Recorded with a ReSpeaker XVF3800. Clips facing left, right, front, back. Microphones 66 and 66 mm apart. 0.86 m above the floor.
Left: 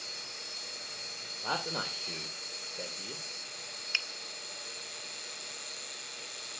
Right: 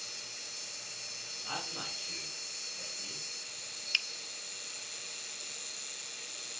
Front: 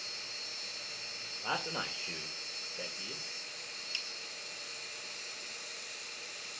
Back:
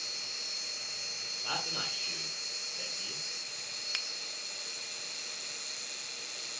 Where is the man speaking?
70° left, 3 m.